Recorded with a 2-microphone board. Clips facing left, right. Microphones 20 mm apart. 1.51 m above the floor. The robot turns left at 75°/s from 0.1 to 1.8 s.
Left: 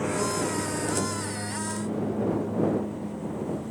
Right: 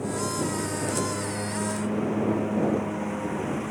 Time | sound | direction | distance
0.0 | a lawn mower | 45° left | ?